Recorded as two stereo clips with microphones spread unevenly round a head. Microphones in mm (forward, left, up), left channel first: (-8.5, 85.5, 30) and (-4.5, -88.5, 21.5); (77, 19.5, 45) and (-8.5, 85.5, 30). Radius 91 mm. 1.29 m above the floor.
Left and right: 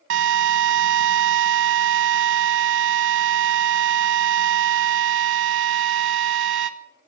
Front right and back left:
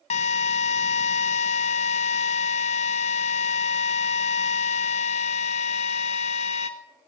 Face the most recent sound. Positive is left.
turn(degrees=-80)